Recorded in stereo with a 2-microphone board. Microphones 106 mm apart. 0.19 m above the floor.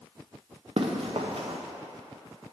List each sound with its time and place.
0.8 s running footsteps: 65° right (ahead or behind), 1.2 m